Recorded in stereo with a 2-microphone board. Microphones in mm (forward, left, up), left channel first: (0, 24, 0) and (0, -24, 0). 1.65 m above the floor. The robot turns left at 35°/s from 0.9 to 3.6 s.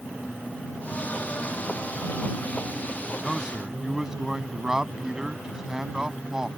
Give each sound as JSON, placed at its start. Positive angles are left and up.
{"t": 3.2, "sound": "a man speaking", "side_deg": 0}